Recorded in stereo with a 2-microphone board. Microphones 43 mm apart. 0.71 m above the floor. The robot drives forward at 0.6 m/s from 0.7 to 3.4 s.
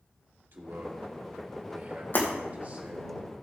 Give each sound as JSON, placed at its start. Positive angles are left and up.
{"t": 0.5, "sound": "a man speaking", "side_deg": -60, "distance_m": 2.0}
{"t": 2.1, "sound": "breaking glass", "side_deg": 55, "distance_m": 3.0}